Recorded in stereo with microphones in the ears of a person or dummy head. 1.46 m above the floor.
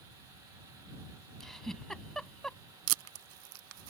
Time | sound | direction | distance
1.4 | a giggle | centre (ahead or behind) | ?
2.9 | tape being pulled | 75° right (ahead or behind) | ?